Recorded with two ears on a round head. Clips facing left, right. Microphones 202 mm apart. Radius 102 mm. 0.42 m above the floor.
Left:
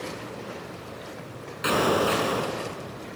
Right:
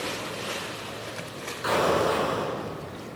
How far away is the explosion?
About 4.5 m.